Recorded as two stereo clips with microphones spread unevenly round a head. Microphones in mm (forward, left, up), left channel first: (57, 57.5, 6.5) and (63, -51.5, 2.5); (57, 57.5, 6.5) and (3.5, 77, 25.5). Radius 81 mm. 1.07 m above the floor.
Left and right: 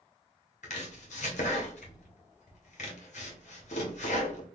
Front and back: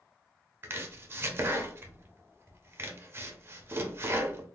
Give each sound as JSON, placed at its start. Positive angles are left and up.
{"t": 0.6, "sound": "chopping", "azimuth_deg": 125, "distance_m": 0.8}